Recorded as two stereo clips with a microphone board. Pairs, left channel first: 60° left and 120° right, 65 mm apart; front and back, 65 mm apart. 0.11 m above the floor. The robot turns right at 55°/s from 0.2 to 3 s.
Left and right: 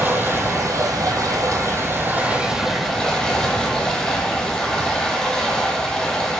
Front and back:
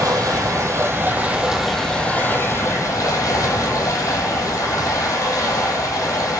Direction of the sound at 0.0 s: 175° right.